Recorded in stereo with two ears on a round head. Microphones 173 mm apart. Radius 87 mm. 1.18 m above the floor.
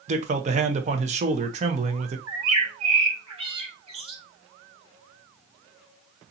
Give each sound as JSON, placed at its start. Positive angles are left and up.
{"t": 0.1, "sound": "a man speaking", "side_deg": -35, "distance_m": 0.9}
{"t": 2.3, "sound": "a bird", "side_deg": -30, "distance_m": 1.7}